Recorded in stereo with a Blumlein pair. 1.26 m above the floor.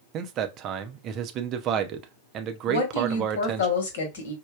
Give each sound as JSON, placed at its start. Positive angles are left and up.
{"t": 0.1, "sound": "a man speaking", "azimuth_deg": -35, "distance_m": 0.6}
{"t": 2.7, "sound": "a woman speaking", "azimuth_deg": 60, "distance_m": 1.2}